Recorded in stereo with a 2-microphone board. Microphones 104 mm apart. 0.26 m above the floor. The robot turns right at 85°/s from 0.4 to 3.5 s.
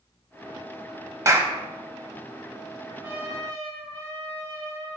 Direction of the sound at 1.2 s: 30° right (ahead or behind).